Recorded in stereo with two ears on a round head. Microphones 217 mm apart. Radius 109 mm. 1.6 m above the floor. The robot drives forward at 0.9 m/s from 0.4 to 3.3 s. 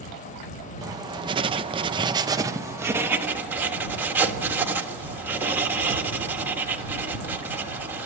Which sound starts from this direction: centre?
Writing, at 0.8 s.